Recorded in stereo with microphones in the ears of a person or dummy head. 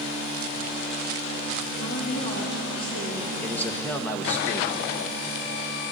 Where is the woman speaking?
30° left (ahead or behind), 4 m.